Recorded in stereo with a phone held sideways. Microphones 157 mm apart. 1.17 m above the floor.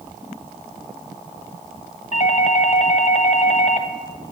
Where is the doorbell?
50° left (ahead or behind), 0.8 m.